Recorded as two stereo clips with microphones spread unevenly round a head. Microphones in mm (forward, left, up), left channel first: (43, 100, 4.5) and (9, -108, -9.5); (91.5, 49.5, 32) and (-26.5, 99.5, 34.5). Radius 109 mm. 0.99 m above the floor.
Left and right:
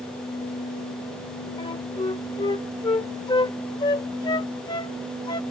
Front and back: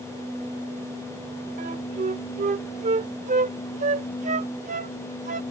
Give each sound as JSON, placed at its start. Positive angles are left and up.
{"t": 1.6, "sound": "a flute", "azimuth_deg": 145}